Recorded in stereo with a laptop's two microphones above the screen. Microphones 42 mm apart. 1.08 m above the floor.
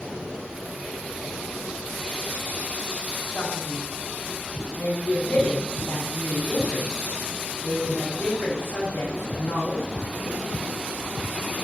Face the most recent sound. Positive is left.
turn(degrees=70)  # may be behind; listen again after turning